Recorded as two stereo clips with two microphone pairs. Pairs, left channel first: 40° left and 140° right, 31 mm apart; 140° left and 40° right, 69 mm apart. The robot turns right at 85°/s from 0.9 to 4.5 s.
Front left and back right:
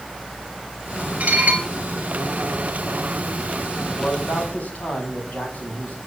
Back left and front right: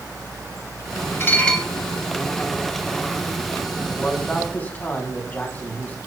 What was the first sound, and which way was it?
Dishes clattering, 165° right.